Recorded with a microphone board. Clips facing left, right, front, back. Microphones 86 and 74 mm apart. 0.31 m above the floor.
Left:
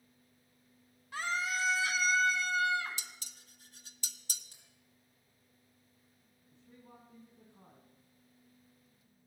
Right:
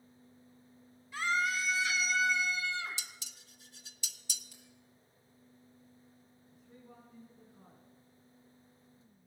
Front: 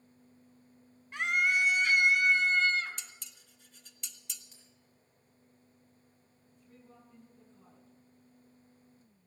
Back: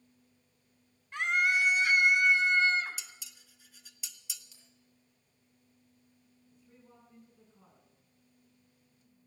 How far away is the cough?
No cough in this recording.